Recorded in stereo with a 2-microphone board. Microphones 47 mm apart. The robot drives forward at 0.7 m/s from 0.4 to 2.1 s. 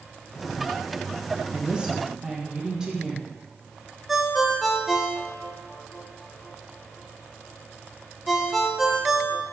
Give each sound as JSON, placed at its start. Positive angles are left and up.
{"t": 1.5, "sound": "a woman speaking", "side_deg": -20, "distance_m": 0.9}
{"t": 4.1, "sound": "a ringtone", "side_deg": -5, "distance_m": 0.7}